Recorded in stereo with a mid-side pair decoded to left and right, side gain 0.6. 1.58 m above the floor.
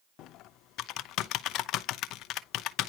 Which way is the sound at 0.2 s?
65° left.